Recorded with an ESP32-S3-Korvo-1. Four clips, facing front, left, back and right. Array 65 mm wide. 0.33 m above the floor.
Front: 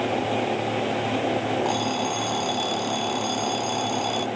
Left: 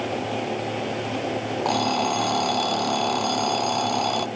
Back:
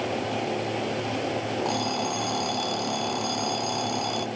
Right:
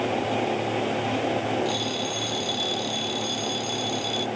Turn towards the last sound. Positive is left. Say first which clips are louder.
# left 6 dB, front 2 dB
turn(degrees=80)